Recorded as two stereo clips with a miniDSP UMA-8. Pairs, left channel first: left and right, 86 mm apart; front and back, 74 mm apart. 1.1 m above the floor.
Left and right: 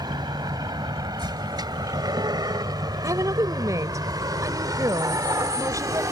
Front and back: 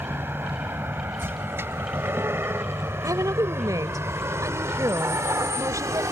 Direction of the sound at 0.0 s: 120° right.